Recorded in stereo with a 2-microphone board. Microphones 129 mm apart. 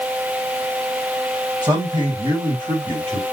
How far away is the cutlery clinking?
No cutlery clinking in this recording.